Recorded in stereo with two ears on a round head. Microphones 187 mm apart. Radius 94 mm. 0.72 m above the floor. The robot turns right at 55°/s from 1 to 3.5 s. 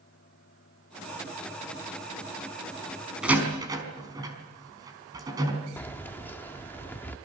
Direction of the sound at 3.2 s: 5° right (ahead or behind).